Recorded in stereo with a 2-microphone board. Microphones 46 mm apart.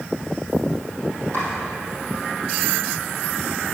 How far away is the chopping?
About 4 m.